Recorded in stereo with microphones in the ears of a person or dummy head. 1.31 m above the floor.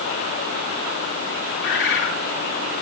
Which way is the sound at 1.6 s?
65° left (ahead or behind).